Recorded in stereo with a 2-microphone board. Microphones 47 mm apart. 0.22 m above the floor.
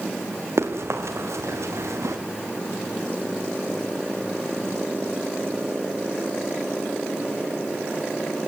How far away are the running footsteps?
About 3.5 m.